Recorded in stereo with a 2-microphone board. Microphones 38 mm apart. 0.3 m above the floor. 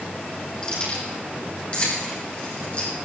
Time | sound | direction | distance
0.6 | keys jangling | 25° left (ahead or behind) | 8 m